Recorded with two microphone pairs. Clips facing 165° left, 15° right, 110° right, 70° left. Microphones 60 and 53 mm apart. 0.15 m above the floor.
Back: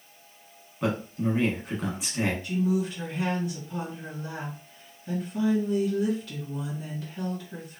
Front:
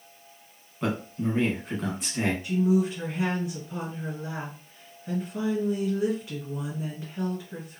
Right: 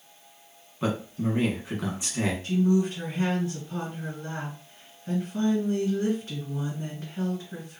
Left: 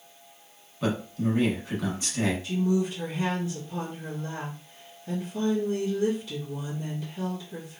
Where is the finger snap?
I don't hear a finger snap.